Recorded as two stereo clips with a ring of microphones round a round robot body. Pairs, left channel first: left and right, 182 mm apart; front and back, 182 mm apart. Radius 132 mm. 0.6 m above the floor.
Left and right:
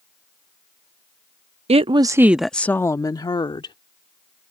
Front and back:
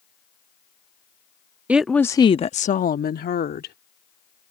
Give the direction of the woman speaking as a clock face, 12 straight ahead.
3 o'clock.